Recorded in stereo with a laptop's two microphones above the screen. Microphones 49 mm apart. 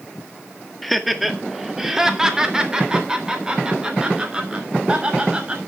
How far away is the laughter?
About 1.7 m.